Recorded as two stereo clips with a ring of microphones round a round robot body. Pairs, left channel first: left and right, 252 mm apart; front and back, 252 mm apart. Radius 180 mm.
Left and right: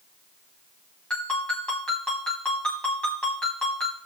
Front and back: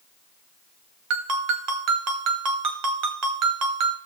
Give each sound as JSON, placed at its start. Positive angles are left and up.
{"t": 1.1, "sound": "a ringtone", "azimuth_deg": 175, "distance_m": 1.1}